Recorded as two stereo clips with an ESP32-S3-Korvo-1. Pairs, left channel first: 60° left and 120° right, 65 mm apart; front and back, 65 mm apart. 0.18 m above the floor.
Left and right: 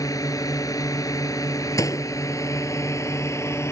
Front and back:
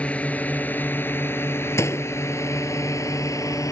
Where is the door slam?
40° left.